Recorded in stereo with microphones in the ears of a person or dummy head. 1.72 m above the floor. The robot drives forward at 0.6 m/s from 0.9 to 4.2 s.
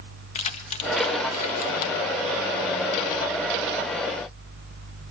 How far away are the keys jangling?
About 1.6 m.